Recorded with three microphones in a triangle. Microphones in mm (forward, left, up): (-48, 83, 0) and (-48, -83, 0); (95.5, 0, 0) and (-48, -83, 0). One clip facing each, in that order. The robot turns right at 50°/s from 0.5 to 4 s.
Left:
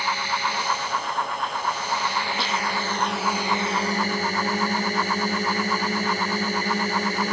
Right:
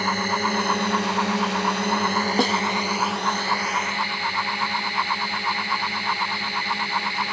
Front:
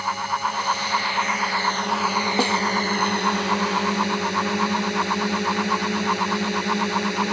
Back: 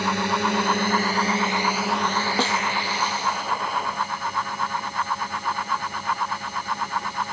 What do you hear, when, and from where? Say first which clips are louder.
0.0 s a drone: right 3 dB, back 3 dB; 130° right; by 7.3 s 45° left
2.4 s a snare drum: right 9 dB, front 3 dB; 50° right; by 2.6 s 40° right